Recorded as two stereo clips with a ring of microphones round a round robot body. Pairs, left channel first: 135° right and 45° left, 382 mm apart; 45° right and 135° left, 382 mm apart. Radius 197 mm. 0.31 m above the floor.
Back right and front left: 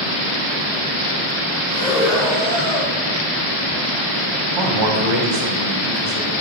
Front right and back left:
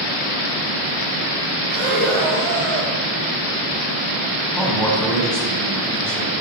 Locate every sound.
1.7 s breathing: 145° left, 3 m
4.6 s a man speaking: 45° left, 2 m